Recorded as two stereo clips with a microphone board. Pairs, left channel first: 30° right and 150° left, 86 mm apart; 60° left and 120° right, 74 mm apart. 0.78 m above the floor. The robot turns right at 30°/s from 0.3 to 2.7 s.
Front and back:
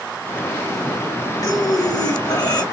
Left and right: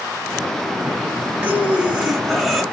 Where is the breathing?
60° right, 0.7 m; by 2.6 s 25° right, 0.7 m.